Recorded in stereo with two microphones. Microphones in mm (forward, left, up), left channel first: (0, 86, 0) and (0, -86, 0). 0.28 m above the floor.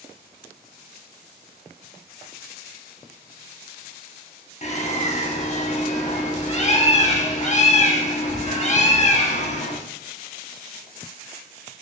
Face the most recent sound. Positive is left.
turn(degrees=40)  # may be behind; listen again after turning